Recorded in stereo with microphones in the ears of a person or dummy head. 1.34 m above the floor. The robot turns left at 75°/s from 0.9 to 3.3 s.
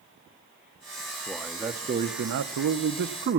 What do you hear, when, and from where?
1.3 s a man speaking: 15° left, 0.6 m; by 3.4 s 140° right, 0.6 m